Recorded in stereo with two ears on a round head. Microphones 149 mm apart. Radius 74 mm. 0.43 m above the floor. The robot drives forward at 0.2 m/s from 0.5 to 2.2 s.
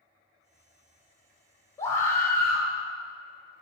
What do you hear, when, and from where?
1.8 s a scream: 15° left (ahead or behind), 1.4 m